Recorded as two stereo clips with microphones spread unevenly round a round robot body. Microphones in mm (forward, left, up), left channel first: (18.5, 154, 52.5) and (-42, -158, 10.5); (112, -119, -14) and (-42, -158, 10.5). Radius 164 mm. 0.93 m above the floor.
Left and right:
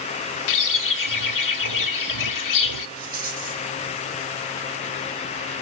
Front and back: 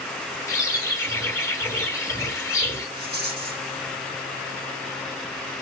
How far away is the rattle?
About 5.5 m.